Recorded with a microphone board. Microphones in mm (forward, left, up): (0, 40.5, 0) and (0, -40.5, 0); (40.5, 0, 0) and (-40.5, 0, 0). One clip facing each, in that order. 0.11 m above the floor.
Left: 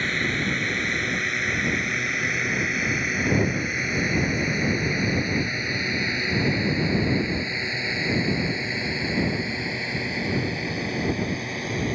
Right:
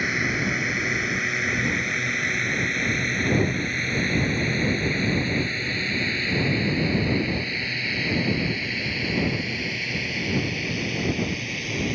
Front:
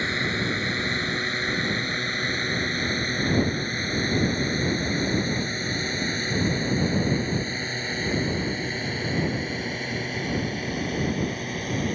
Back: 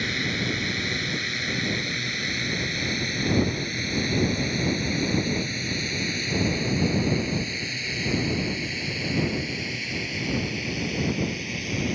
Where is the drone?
15° right; by 11.9 s 40° left.